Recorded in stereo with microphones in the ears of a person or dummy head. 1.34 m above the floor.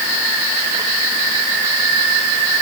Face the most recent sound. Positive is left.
No sound to turn to.